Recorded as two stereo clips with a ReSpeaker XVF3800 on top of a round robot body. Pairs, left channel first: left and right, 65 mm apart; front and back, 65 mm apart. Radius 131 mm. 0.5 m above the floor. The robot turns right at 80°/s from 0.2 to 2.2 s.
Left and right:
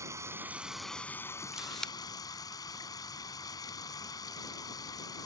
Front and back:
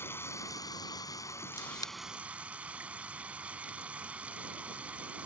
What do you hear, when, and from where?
0.0 s running water: 50° right; by 5.3 s 110° left
1.5 s a camera shutter: 15° right; by 1.9 s 20° left